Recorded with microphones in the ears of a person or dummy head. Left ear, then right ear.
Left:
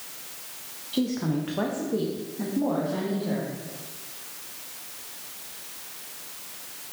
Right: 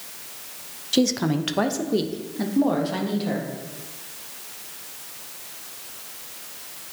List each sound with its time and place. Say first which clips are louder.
0.9 s a woman speaking: right 6 dB; 65° right (ahead or behind), 0.7 m; by 3.5 s 60° right (ahead or behind), 1.6 m